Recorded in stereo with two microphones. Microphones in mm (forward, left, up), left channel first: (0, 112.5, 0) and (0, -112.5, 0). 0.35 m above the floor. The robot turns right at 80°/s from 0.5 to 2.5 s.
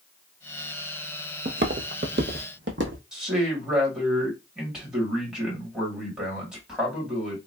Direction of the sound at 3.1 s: 5° right (ahead or behind).